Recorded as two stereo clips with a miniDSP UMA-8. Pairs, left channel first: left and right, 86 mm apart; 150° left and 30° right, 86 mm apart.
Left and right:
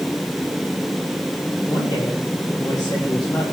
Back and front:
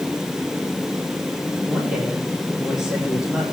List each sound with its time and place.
1.7 s a man speaking: 55° left, 5 m